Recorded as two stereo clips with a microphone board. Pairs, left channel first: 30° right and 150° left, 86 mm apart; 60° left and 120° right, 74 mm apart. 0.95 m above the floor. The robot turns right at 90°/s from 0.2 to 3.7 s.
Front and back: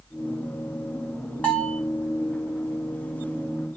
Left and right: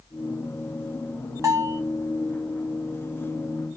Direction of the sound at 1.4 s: 95° right.